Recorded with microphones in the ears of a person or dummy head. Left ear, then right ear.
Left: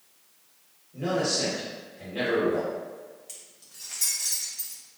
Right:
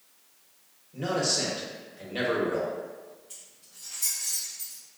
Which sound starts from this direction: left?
Keys jangling, at 3.3 s.